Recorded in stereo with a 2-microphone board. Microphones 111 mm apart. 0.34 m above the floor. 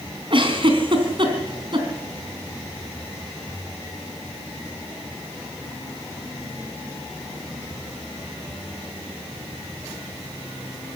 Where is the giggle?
50° right (ahead or behind), 3.5 m.